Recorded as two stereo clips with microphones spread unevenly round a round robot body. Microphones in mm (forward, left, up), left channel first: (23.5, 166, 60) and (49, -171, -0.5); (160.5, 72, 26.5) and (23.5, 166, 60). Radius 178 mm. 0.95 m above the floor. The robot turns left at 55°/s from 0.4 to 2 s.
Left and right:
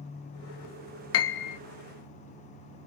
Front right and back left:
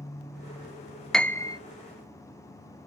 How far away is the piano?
About 0.6 m.